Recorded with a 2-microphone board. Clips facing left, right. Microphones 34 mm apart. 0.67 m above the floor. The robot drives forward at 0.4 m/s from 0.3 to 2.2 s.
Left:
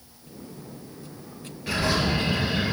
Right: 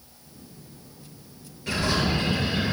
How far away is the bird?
About 6.5 m.